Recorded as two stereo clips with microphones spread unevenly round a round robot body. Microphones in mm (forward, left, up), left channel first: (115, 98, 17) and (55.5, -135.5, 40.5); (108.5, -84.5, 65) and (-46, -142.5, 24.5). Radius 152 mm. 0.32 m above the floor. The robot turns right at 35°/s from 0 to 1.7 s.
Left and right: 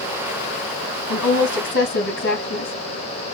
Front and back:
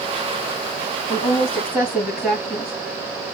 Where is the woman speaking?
90° left, 2.5 m; by 2.7 s 110° left, 2.5 m.